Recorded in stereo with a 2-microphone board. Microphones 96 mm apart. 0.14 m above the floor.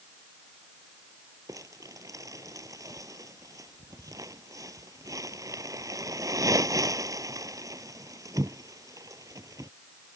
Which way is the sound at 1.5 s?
40° right (ahead or behind).